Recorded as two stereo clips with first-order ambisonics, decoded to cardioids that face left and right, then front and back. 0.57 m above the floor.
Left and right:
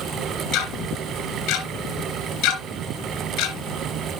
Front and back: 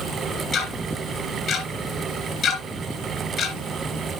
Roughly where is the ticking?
Ahead left.